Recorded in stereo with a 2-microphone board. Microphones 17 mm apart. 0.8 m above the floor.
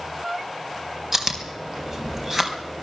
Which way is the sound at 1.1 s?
25° right (ahead or behind).